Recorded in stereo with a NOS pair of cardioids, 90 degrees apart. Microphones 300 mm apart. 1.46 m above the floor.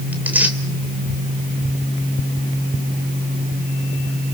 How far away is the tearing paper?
About 3 m.